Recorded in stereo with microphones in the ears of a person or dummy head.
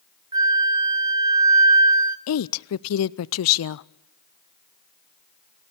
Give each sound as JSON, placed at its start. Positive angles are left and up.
{"t": 0.3, "sound": "a flute", "side_deg": -25, "distance_m": 1.0}
{"t": 2.3, "sound": "a woman speaking", "side_deg": 75, "distance_m": 0.6}